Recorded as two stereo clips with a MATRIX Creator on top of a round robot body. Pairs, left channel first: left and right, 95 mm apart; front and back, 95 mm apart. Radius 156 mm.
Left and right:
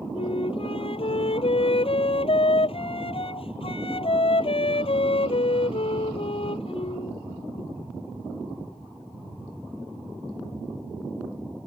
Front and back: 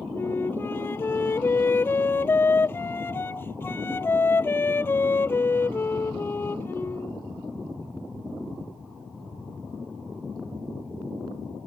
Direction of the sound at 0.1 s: 65° left.